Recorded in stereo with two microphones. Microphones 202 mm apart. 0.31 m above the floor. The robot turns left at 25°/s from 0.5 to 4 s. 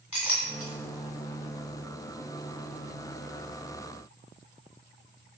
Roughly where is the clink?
Centre.